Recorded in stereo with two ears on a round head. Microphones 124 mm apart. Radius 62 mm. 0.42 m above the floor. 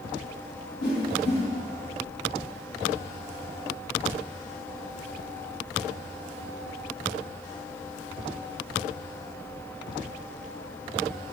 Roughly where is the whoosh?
Left.